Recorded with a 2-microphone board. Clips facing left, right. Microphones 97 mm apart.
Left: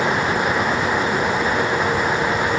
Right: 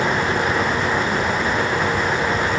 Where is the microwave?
I don't hear a microwave.